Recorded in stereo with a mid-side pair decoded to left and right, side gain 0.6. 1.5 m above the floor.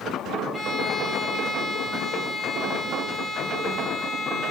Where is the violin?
25° left, 5 m.